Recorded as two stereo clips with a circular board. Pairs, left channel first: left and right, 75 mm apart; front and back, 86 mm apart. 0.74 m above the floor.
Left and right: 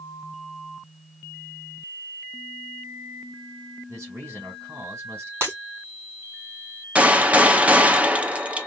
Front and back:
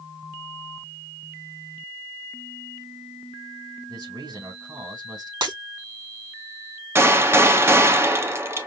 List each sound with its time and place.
3.9 s a man speaking: 140° right, 2.5 m
5.4 s breaking glass: 145° right, 3.5 m
7.0 s a gunshot: 145° right, 0.7 m